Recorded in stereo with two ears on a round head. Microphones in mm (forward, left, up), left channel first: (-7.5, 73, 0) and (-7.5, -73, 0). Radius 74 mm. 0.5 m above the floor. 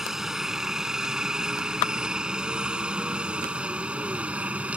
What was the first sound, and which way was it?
A helicopter, 5° right (ahead or behind).